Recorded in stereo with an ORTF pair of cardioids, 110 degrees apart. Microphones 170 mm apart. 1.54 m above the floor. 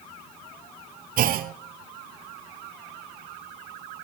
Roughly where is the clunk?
Ahead right.